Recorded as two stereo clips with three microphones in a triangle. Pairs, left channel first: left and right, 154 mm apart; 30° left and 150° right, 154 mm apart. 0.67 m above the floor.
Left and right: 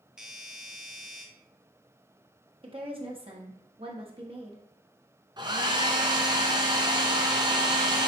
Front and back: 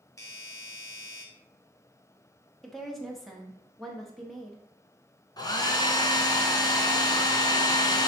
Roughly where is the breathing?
No breathing in this recording.